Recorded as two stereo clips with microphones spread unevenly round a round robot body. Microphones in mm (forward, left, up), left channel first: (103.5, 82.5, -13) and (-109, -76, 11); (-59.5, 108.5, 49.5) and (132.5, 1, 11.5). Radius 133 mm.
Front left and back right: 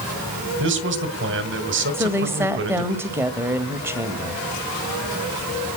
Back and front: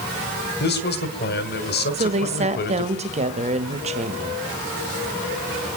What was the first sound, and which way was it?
A man speaking, 175° right.